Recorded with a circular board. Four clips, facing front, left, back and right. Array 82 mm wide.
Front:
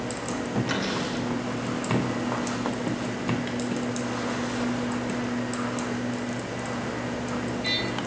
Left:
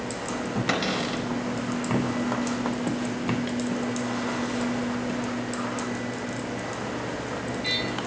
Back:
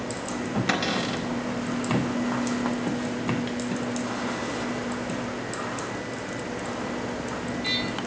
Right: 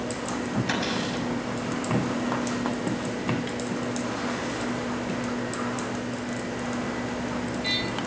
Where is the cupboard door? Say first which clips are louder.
Left 1 dB, back 2 dB; 130° left, 4.5 m.